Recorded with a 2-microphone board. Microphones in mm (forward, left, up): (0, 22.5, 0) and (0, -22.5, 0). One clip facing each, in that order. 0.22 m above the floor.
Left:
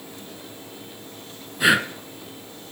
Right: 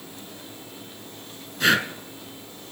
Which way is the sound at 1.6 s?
10° left (ahead or behind).